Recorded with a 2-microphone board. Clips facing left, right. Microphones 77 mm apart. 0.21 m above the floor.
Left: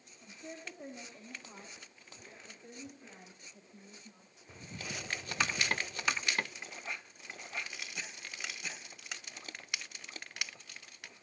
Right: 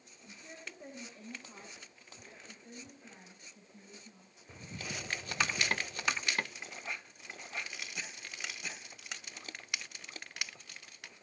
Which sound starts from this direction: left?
A woman speaking, at 0.2 s.